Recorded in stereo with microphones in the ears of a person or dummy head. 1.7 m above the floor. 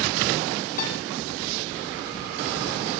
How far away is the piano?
About 2.5 m.